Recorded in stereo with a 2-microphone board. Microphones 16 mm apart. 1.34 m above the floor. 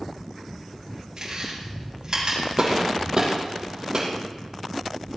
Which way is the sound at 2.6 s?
35° right (ahead or behind).